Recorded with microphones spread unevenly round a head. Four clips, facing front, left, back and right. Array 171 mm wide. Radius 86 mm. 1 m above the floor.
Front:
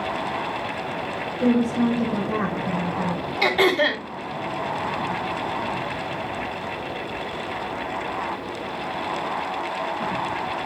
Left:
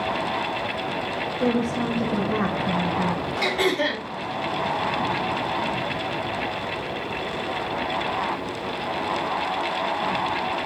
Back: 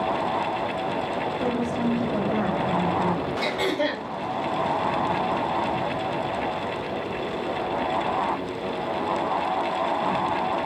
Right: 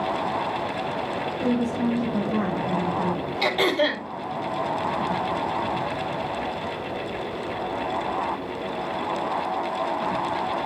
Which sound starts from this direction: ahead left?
A woman speaking, at 1.4 s.